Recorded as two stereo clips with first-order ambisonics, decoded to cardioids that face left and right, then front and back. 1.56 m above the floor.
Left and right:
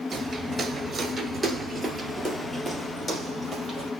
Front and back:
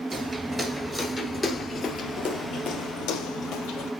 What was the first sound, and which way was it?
Footsteps, 120° right.